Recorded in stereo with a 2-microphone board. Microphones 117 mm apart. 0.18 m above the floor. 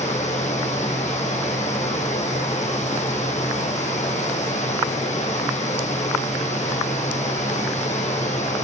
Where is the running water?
80° left, 4.5 m.